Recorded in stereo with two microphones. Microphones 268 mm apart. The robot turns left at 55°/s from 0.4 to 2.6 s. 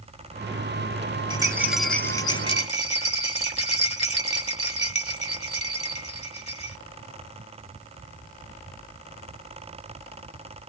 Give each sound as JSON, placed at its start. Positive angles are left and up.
{"t": 1.3, "sound": "a rattle", "azimuth_deg": -150, "distance_m": 1.2}